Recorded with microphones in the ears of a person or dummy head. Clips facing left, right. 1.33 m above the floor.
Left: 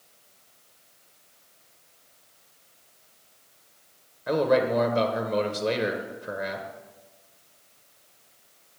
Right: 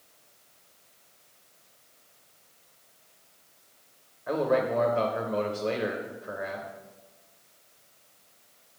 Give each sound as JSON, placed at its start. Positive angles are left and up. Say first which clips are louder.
{"t": 4.3, "sound": "a man speaking", "louder": "left 3 dB", "side_deg": 50, "distance_m": 0.6}